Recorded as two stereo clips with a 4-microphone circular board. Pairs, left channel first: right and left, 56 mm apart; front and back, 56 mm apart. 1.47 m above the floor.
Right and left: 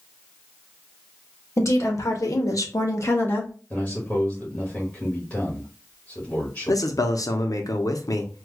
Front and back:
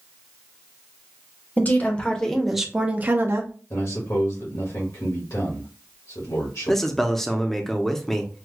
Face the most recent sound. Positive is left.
turn(degrees=-85)